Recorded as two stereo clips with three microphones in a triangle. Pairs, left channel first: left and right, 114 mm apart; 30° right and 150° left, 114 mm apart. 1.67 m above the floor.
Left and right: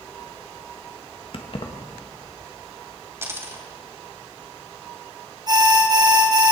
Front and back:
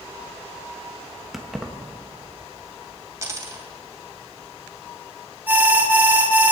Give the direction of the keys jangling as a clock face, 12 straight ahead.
10 o'clock.